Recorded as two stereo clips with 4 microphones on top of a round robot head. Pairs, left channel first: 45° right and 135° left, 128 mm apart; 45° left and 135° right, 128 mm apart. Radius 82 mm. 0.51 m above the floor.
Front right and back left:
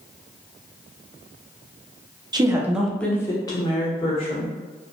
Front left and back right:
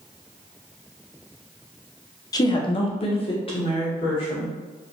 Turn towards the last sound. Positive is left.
turn(degrees=-5)